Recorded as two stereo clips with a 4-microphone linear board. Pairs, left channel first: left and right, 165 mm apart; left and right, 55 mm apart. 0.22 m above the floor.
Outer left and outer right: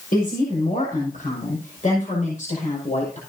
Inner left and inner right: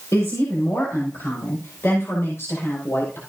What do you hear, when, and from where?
0.1 s a woman speaking: 60° left (ahead or behind), 7 m; by 3.2 s 45° left (ahead or behind), 6.5 m